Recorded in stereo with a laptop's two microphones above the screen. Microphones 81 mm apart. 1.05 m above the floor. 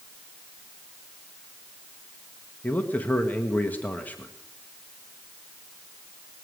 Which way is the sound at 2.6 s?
20° left (ahead or behind).